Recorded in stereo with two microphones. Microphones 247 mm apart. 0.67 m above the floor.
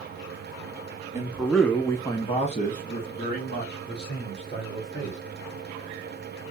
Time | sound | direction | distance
1.1 | a man speaking | 10° right (ahead or behind) | 1.2 m